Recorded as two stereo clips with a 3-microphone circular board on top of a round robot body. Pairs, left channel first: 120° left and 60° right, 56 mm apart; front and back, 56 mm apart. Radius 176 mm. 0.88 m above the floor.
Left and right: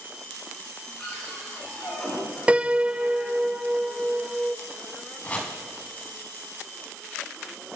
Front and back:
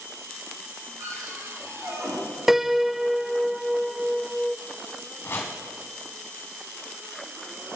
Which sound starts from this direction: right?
A piano, at 2.5 s.